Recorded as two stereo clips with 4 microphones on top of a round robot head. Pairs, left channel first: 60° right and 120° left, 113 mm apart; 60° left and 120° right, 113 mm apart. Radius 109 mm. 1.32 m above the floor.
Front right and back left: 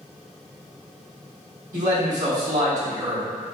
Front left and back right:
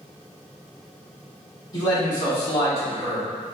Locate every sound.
1.7 s a man speaking: 115° left, 1.6 m; by 3.2 s 85° left, 0.9 m